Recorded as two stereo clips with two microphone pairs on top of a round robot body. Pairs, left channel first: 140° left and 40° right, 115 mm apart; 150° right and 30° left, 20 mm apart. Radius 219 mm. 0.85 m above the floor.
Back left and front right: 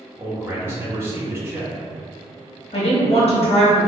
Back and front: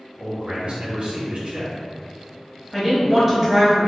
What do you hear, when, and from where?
0.2 s a man speaking: 25° left, 1.4 m
2.7 s a woman speaking: 110° left, 1.3 m